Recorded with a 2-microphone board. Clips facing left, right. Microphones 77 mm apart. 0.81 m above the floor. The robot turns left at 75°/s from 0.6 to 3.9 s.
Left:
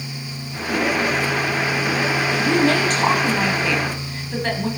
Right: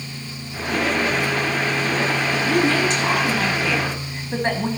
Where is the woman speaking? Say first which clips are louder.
Left 2 dB; 95° left, 5 m; by 4.7 s 25° right, 5 m.